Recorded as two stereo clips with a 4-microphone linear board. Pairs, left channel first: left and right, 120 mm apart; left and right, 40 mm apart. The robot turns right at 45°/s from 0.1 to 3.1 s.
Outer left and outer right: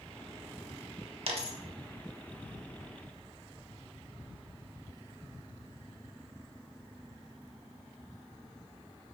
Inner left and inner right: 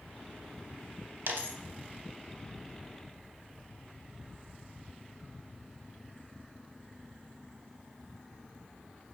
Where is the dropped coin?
60° right (ahead or behind), 0.6 m; by 1.6 s 70° right (ahead or behind), 0.6 m.